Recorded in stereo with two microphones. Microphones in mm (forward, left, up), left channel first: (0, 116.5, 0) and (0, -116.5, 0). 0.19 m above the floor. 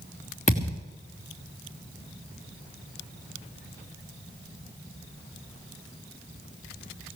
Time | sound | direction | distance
0.5 | a thud | 30° left (ahead or behind) | 3.5 m